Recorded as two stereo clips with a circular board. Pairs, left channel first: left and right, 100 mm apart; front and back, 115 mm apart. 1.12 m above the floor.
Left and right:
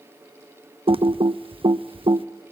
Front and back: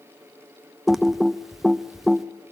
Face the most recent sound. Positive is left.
turn(degrees=-95)